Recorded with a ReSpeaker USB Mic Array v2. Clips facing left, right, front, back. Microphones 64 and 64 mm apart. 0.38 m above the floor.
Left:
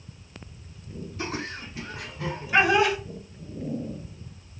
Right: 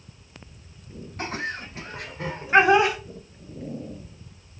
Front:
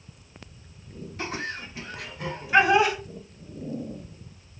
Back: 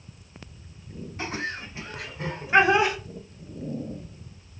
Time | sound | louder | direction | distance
1.2 | laughter | right 3 dB, back 1 dB | 120° right | 1.9 m